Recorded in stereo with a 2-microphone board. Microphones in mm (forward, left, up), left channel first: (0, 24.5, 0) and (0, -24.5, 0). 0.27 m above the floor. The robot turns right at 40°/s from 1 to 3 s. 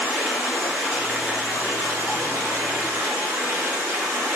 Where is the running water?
165° right, 1.2 m; by 4.4 s 85° right, 1.2 m.